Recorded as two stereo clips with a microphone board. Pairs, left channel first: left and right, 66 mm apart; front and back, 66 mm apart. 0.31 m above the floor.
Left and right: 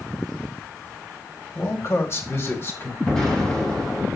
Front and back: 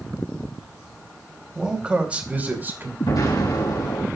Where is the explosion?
15° left, 4 m.